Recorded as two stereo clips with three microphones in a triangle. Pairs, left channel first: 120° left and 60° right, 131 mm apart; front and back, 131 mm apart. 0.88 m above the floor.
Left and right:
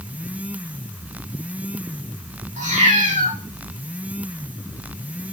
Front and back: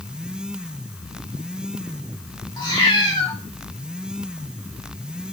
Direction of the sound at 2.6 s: 55° right.